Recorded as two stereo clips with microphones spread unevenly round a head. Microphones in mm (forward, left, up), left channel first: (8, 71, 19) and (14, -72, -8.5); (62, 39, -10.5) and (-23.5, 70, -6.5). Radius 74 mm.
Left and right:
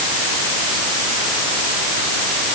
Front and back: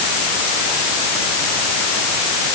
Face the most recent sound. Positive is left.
No sound to turn to.